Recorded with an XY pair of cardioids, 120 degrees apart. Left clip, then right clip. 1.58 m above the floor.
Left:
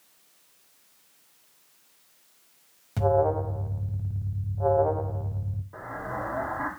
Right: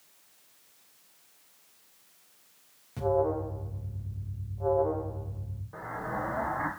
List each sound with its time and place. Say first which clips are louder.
3.0 s an alarm: left 4 dB; 45° left, 1.1 m
5.7 s an explosion: left 1 dB; 5° right, 2 m